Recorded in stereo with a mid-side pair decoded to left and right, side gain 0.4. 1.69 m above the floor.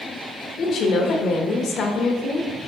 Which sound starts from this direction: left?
A woman speaking, at 0.6 s.